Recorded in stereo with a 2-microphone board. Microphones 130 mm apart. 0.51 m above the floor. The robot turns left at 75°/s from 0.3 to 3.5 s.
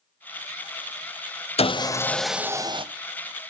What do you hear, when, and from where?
1.6 s sawing: 50° left, 0.6 m; by 2.9 s 45° right, 0.6 m